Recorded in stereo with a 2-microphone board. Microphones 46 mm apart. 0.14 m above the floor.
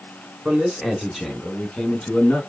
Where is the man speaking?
20° right (ahead or behind), 1.3 m; by 2.4 s 10° left (ahead or behind), 1.4 m.